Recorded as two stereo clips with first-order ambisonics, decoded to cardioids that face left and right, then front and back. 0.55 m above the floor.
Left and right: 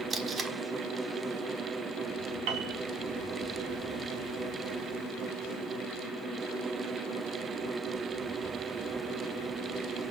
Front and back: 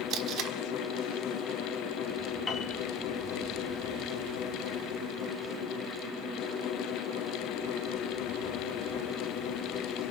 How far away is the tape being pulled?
About 1.6 m.